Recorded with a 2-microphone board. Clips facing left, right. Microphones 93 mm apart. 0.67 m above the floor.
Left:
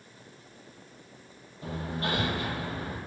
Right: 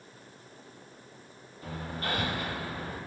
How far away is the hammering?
About 5 m.